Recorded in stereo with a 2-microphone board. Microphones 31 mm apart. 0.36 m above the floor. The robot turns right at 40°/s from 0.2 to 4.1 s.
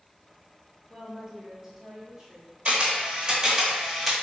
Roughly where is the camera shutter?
Ahead right.